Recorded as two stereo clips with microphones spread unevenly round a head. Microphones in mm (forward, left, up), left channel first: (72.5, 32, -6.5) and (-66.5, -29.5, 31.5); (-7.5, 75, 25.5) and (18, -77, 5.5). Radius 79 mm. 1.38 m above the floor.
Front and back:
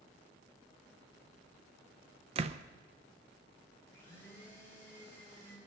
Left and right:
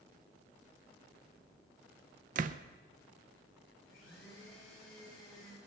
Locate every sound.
2.4 s a door slam: 120° right, 0.6 m
3.9 s a blender: 105° left, 5.5 m